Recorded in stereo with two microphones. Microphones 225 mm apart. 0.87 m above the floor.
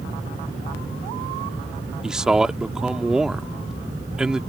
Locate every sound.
2.0 s a man speaking: 5° right (ahead or behind)